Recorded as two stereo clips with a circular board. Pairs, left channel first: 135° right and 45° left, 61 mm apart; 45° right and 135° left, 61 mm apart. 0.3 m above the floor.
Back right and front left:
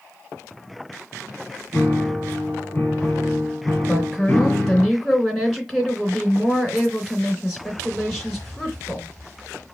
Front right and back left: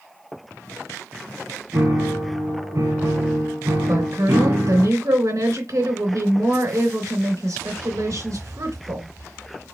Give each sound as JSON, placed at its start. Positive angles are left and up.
{"t": 1.7, "sound": "a piano", "azimuth_deg": 160, "distance_m": 1.6}
{"t": 3.9, "sound": "a woman speaking", "azimuth_deg": 135, "distance_m": 3.0}